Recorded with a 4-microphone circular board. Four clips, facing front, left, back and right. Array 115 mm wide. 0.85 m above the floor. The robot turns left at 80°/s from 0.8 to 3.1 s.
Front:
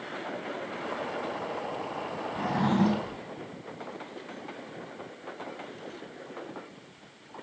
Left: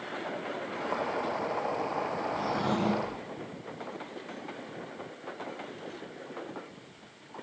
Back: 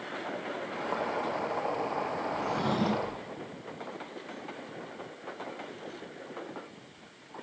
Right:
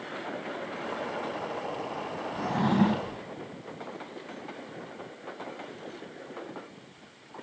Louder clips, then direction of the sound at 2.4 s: Right 6 dB, front 5 dB; 25° right.